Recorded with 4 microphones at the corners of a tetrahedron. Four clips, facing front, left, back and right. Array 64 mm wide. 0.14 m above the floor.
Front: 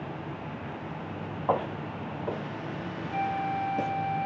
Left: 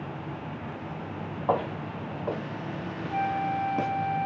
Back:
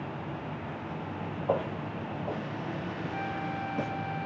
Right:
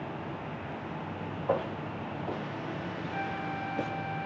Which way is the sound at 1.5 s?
50° left.